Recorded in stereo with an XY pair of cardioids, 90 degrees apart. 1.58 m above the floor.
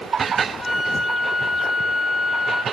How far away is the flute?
About 0.6 m.